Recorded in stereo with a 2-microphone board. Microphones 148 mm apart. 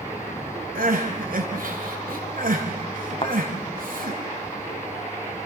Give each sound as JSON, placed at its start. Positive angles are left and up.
{"t": 0.8, "sound": "crying", "side_deg": -75, "distance_m": 3.5}
{"t": 3.2, "sound": "a thud", "side_deg": 40, "distance_m": 1.6}